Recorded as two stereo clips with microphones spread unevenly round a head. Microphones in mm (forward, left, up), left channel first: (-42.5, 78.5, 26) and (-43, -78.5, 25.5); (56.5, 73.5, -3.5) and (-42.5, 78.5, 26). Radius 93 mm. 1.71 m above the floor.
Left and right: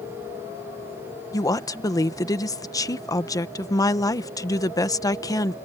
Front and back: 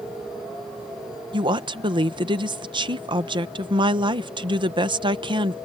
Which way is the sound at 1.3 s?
155° left.